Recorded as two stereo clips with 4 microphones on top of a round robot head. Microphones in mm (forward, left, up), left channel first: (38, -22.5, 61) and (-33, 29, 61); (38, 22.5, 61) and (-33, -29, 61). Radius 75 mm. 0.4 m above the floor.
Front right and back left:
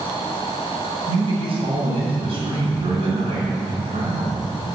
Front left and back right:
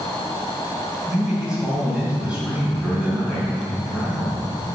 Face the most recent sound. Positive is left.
turn(degrees=130)